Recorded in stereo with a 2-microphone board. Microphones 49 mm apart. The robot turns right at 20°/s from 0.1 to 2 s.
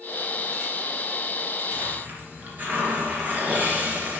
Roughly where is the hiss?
Right.